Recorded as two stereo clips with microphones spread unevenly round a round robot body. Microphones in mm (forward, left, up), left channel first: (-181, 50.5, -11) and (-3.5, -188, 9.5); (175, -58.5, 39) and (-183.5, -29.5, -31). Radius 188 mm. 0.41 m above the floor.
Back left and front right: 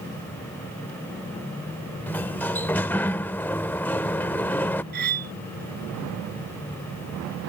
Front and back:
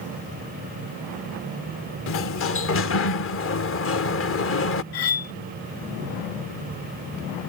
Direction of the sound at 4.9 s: 10° left.